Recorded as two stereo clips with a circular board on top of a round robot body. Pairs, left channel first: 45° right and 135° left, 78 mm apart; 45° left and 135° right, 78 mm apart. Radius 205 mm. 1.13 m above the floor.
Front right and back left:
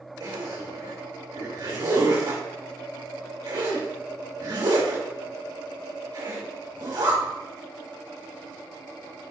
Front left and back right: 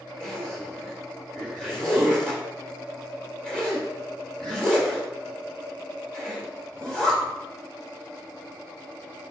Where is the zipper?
125° left, 3.5 m.